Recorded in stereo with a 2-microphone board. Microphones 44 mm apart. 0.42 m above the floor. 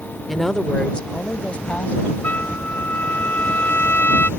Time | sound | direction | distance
0.3 | a woman speaking | 5° left (ahead or behind) | ?
2.2 | a trumpet | 45° left (ahead or behind) | ?